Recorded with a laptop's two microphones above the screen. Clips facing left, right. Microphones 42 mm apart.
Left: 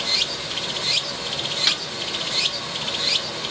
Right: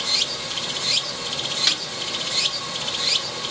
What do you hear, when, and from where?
0.0 s running water: centre (ahead or behind), 0.8 m
1.7 s a snare drum: 10° left (ahead or behind), 1.0 m